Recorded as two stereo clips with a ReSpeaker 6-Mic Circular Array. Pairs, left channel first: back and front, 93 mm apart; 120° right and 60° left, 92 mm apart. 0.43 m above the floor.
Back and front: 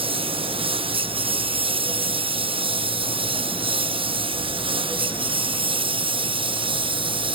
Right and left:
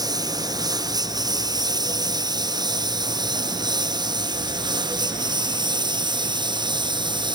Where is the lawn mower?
15° left; by 7.3 s 20° left.